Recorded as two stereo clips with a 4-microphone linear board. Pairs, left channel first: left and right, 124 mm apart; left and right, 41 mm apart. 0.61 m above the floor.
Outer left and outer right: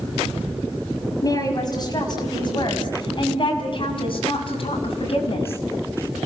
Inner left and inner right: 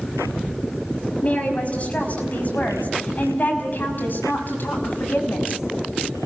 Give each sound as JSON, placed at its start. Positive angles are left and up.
{"t": 1.2, "sound": "a woman speaking", "side_deg": 30, "distance_m": 5.0}